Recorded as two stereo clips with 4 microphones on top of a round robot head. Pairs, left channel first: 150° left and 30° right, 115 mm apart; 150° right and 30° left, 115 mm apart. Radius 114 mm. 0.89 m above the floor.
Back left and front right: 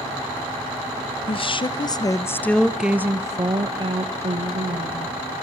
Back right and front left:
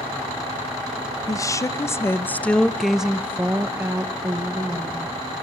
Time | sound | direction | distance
1.3 | a woman speaking | 160° left | 1.3 m